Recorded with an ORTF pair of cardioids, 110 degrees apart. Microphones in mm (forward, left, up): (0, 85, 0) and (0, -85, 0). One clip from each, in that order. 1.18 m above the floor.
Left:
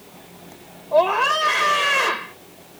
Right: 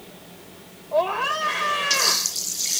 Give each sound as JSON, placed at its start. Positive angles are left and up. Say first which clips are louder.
{"t": 0.9, "sound": "a scream", "louder": "left 5 dB", "azimuth_deg": 30}